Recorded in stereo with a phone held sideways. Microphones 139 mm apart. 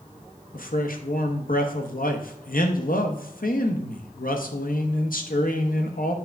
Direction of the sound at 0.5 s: 80° left.